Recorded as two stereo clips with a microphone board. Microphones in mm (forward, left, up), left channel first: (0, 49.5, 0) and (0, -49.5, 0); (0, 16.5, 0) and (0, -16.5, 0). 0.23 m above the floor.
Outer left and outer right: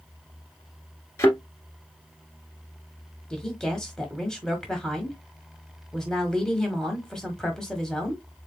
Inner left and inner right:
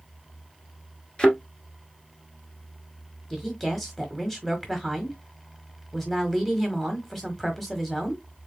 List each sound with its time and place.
1.2 s a thud: 30° left (ahead or behind), 1.6 m
3.3 s a woman speaking: 5° left (ahead or behind), 1.3 m